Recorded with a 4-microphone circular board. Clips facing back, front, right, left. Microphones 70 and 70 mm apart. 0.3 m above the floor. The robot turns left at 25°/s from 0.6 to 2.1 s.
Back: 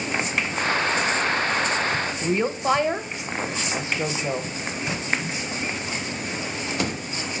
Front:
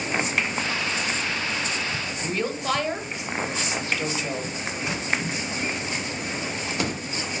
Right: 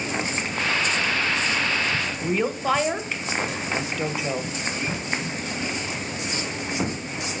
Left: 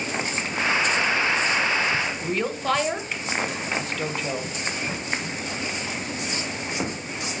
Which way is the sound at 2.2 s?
165° right.